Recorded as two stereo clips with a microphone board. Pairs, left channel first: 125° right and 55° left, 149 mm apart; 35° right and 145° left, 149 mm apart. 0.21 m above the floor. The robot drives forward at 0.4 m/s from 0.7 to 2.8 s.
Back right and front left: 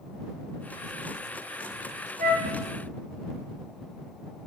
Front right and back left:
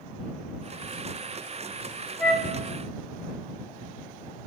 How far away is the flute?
About 0.5 m.